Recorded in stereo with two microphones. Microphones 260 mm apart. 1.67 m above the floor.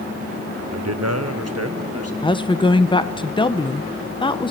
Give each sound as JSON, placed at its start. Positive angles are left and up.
{"t": 0.7, "sound": "a man speaking", "side_deg": -80, "distance_m": 0.5}
{"t": 2.2, "sound": "a woman speaking", "side_deg": 20, "distance_m": 0.7}